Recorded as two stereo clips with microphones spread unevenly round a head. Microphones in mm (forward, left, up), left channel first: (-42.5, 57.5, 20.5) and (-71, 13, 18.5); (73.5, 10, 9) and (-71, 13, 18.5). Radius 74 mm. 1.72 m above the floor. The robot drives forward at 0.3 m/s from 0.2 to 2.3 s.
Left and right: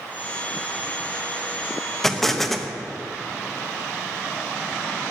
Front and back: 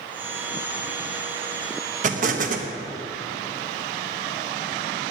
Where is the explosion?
140° left, 1.2 m; by 2.7 s 145° left, 1.3 m.